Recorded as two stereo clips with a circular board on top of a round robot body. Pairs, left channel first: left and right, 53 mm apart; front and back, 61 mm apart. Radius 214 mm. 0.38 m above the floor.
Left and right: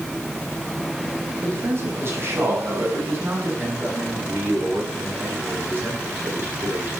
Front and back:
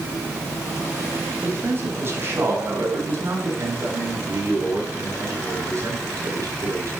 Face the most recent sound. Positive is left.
turn(degrees=-140)